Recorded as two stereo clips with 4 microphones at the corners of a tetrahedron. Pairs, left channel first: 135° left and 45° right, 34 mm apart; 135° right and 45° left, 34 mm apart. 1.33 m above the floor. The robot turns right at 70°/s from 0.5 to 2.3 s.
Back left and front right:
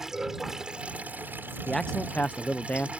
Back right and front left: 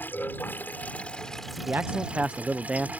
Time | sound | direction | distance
0.0 | running water | 120° right | ?
1.7 | a man speaking | 55° left | ?